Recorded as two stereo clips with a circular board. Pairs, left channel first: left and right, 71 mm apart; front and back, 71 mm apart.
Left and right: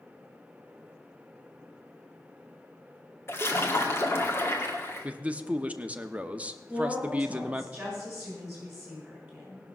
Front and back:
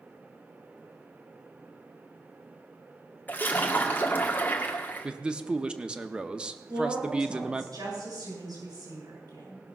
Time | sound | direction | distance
3.3 | a splash | 55° left | 1.6 m
5.0 | a man speaking | 125° right | 0.7 m
6.7 | a woman speaking | 170° right | 6.5 m